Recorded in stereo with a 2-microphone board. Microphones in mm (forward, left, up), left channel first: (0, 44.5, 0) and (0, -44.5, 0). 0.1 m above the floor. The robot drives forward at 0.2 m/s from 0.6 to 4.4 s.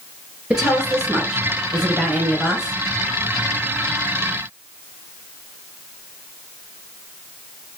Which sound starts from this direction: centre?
A woman speaking, at 0.5 s.